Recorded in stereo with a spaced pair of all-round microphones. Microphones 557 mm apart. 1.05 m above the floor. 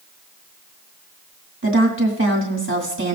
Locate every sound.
1.6 s a woman speaking: 20° right (ahead or behind), 2 m